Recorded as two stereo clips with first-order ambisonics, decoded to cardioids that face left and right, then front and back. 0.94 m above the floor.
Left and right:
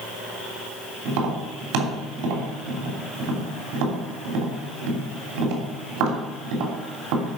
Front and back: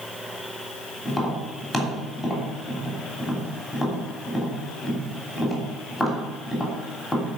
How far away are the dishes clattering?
I don't hear dishes clattering.